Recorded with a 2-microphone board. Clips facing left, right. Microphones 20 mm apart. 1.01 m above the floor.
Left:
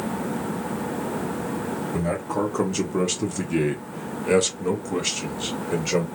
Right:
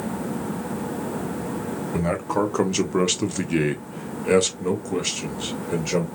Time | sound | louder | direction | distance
1.9 | a man speaking | right 3 dB | 35° right (ahead or behind) | 1.2 m